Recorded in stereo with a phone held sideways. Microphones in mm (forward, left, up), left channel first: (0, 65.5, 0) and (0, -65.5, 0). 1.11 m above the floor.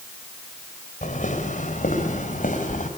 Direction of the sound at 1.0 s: 65° left (ahead or behind).